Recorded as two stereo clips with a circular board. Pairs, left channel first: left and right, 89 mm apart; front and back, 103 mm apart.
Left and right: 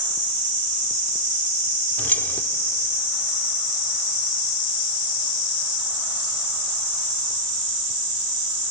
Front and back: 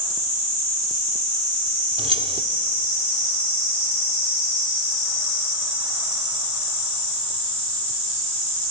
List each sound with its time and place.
2.0 s keys jangling: 160° left, 1.0 m